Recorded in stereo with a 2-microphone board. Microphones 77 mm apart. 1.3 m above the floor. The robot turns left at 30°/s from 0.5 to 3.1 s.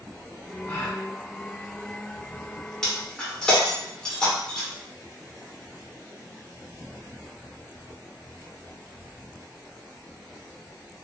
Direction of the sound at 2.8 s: 10° left (ahead or behind).